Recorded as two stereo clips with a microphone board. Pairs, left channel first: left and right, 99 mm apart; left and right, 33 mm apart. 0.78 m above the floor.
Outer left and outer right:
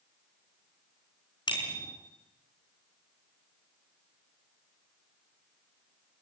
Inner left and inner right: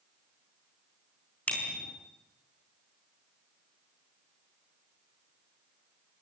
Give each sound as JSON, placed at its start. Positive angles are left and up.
{"t": 1.5, "sound": "a bicycle bell", "side_deg": 50, "distance_m": 6.0}